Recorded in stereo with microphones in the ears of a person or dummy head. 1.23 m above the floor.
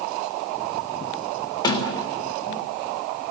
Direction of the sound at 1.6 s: 30° left (ahead or behind).